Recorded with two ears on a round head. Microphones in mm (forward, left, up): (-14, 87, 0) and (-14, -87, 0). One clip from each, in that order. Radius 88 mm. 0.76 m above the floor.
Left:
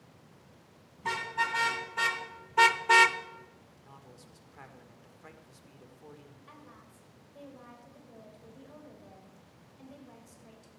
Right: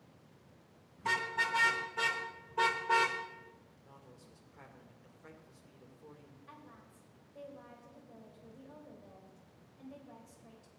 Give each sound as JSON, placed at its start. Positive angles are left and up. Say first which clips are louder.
{"t": 1.0, "sound": "a car horn", "louder": "left 1 dB", "side_deg": 0, "distance_m": 3.0}
{"t": 3.7, "sound": "a man speaking", "louder": "left 4 dB", "side_deg": 40, "distance_m": 2.0}
{"t": 6.5, "sound": "a woman speaking", "louder": "even", "side_deg": 20, "distance_m": 3.5}